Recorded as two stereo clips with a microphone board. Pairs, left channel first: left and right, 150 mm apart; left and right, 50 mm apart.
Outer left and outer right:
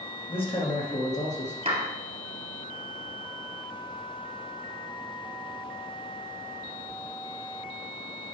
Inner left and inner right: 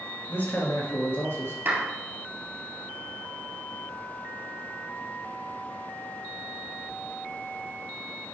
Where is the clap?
45° right (ahead or behind), 2 m.